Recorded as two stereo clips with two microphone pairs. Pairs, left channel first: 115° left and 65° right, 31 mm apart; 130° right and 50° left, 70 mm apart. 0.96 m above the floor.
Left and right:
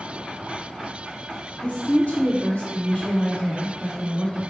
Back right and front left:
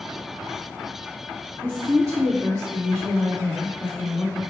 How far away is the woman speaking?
About 0.7 m.